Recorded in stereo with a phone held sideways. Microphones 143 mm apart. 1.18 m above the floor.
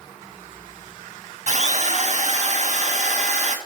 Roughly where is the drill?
Right.